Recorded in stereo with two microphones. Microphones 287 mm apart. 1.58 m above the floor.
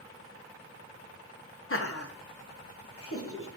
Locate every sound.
1.7 s laughter: 45° left (ahead or behind), 0.8 m